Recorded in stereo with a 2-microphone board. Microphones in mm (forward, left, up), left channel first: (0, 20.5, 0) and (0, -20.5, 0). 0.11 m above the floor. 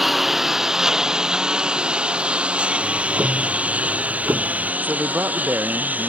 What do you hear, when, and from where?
0.0 s a lawn mower: 5° right (ahead or behind); by 6.1 s 45° right (ahead or behind)
2.8 s ticking: 75° right (ahead or behind)
4.8 s a man speaking: 55° right (ahead or behind)